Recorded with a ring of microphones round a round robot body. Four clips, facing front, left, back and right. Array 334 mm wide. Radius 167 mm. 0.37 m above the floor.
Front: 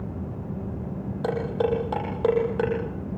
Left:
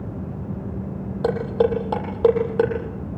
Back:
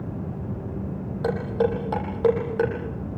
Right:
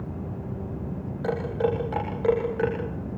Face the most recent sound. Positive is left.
turn(degrees=95)